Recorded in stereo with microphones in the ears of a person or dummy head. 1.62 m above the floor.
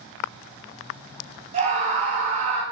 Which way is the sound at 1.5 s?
35° right (ahead or behind).